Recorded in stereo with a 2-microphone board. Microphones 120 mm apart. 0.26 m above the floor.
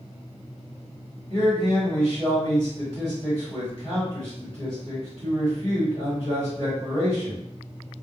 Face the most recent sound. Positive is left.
turn(degrees=40)  # may be behind; listen again after turning